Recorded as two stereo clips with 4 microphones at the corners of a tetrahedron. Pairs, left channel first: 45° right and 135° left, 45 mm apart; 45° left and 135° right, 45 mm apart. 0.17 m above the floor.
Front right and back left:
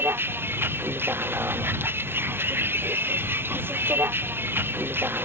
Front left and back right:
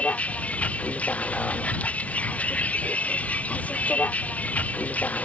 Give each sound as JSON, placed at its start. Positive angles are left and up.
{"t": 0.0, "sound": "a vehicle", "azimuth_deg": 105}